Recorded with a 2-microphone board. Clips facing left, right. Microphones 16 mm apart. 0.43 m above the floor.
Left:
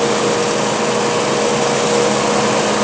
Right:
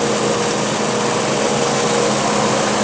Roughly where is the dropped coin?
I don't hear a dropped coin.